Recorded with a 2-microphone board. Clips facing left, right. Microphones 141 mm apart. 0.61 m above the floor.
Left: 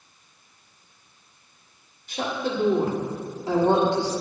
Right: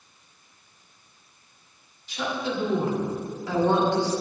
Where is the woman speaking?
50° left (ahead or behind), 1.4 m; by 4.1 s 15° left (ahead or behind), 1.4 m.